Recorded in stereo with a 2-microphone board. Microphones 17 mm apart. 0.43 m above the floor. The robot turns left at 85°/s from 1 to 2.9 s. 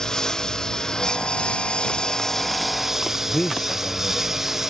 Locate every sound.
0.0 s a lawn mower: 140° left; by 4.7 s 20° right
3.2 s a man speaking: 45° left (ahead or behind)